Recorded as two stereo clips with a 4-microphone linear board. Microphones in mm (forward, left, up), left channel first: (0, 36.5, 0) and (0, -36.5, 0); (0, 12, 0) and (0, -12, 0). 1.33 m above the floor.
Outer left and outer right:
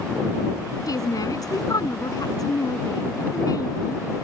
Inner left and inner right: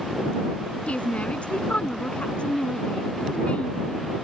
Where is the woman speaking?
55° left (ahead or behind).